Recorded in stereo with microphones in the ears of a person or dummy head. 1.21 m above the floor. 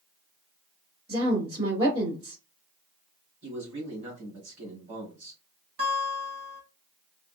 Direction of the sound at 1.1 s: 30° right (ahead or behind).